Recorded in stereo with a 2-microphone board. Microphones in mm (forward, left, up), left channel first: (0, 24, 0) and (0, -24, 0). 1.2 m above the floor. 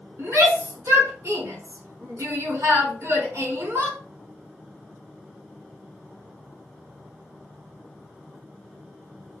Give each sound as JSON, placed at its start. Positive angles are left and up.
{"t": 0.2, "sound": "a shout", "side_deg": -70, "distance_m": 4.5}